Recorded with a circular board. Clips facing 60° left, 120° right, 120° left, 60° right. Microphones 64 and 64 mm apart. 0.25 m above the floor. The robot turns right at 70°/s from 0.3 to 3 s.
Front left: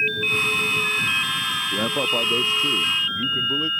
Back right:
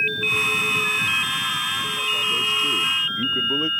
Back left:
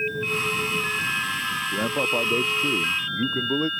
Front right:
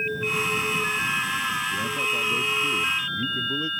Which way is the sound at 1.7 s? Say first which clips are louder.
Front left 3 dB, back left 2 dB; 75° left.